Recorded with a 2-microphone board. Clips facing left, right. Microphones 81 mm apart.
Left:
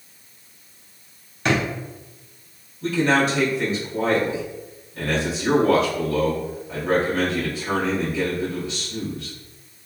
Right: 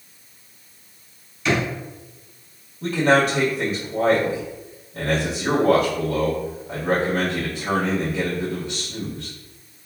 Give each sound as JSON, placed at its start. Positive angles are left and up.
{"t": 1.4, "sound": "a drawer", "side_deg": 50, "distance_m": 1.3}
{"t": 2.8, "sound": "a man speaking", "side_deg": -65, "distance_m": 1.5}